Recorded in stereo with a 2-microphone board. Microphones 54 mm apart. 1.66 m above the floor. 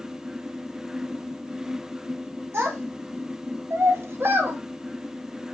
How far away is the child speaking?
About 1.6 m.